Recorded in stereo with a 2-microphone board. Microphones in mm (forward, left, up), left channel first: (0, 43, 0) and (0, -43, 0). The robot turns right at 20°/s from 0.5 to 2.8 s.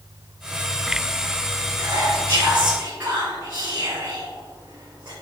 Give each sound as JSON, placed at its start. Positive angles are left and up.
{"t": 1.8, "sound": "whispering", "side_deg": -70, "distance_m": 2.5}